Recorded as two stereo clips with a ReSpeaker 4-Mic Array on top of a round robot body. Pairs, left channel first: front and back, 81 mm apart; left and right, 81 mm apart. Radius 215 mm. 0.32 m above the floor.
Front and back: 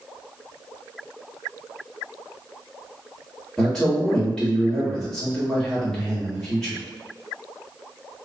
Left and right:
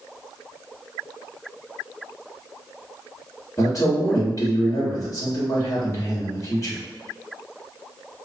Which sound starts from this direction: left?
A man speaking, at 3.6 s.